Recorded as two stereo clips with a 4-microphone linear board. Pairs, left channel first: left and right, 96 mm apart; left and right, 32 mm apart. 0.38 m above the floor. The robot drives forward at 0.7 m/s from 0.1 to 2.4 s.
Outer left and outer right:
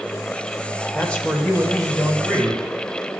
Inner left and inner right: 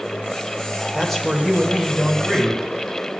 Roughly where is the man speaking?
Centre.